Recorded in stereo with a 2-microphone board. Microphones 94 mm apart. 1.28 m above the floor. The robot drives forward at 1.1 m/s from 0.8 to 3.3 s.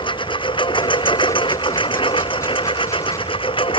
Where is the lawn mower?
60° left (ahead or behind); by 3.8 s 65° left (ahead or behind).